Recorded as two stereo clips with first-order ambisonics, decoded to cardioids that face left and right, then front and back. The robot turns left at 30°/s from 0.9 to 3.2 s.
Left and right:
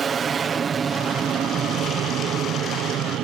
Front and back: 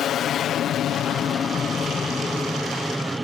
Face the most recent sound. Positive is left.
turn(degrees=-105)